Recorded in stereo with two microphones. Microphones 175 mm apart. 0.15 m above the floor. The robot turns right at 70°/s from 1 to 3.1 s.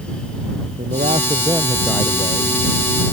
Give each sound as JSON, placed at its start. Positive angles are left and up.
{"t": 0.8, "sound": "a man speaking", "azimuth_deg": -55}